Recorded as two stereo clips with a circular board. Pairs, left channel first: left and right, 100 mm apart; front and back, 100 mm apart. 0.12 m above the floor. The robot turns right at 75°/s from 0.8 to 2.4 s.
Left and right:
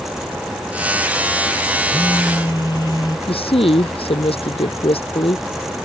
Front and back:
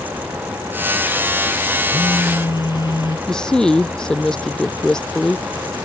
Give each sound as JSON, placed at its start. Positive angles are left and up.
{"t": 1.9, "sound": "a phone buzzing", "azimuth_deg": 5}
{"t": 3.3, "sound": "a woman speaking", "azimuth_deg": 85}